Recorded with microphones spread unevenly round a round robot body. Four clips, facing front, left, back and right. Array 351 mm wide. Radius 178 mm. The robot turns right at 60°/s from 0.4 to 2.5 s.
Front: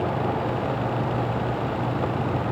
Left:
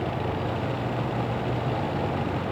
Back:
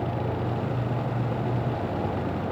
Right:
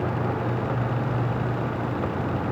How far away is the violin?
No violin in this recording.